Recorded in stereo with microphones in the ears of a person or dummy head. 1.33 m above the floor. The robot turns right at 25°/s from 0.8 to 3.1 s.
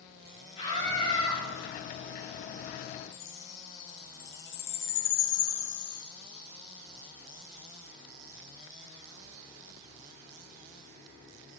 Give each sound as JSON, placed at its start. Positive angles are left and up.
{"t": 0.6, "sound": "a scream", "side_deg": 35, "distance_m": 8.0}
{"t": 3.1, "sound": "a chime", "side_deg": 65, "distance_m": 3.0}